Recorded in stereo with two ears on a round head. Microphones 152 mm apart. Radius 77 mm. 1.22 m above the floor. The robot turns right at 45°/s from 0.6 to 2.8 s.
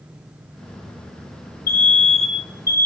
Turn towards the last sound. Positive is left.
turn(degrees=165)